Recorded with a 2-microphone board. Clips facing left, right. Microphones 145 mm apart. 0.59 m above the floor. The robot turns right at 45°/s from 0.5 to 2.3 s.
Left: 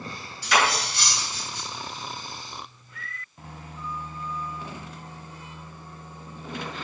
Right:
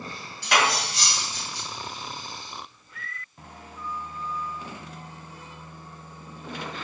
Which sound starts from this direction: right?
Cutlery clinking, at 0.4 s.